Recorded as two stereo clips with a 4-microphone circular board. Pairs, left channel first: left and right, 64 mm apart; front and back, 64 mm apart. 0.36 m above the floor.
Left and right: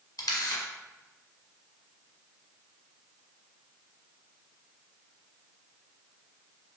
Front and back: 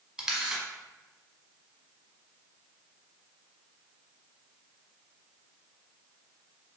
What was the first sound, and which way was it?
A camera shutter, 105° left.